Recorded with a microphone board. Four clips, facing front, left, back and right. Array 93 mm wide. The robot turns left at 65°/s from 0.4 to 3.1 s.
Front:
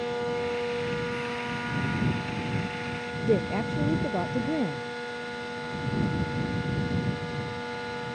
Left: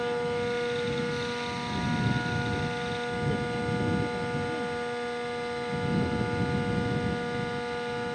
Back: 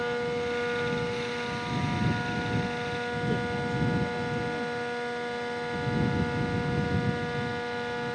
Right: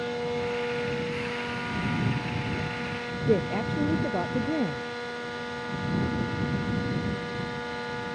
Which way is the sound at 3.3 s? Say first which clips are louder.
Right 9 dB, front 8 dB; 45° right.